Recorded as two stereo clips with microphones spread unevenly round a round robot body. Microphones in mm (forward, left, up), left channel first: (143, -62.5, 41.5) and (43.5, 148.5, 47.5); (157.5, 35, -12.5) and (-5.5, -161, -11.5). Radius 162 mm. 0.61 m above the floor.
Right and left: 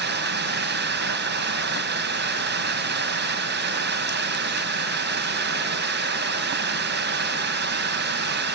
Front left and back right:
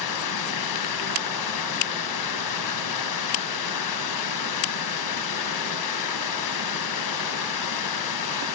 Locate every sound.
0.0 s running water: 70° left, 3.5 m